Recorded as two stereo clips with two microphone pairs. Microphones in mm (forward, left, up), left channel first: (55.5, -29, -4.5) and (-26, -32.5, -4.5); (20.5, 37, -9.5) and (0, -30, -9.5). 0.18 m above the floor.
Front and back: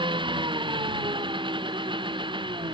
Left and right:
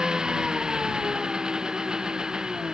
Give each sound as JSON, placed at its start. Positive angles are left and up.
{"t": 0.0, "sound": "an engine running", "azimuth_deg": 175}